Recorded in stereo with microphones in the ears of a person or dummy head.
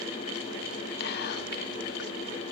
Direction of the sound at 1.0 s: 55° left (ahead or behind).